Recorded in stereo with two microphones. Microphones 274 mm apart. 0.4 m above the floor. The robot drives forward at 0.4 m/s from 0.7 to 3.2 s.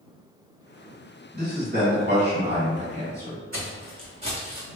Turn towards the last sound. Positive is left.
turn(degrees=-15)  # may be behind; listen again after turning